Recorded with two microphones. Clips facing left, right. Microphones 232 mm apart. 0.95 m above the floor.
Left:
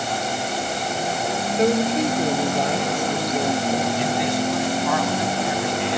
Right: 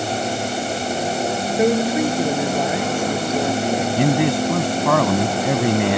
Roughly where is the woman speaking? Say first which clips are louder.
Right 2 dB; centre.